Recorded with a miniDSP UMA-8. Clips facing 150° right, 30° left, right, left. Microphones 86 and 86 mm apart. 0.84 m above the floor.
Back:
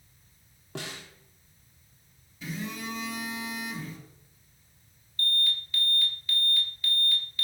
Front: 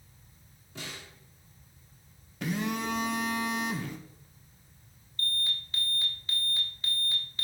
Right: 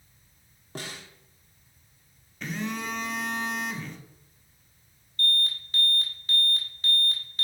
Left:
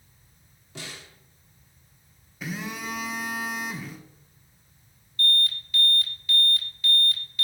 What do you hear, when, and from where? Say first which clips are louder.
0.8 s a snare drum: back 4 dB, right 2 dB; 135° right, 1.4 m
2.4 s a phone buzzing: front 5 dB, right 1 dB; 5° left, 0.9 m
5.2 s an alarm: back 4 dB, left 2 dB; 30° right, 2.0 m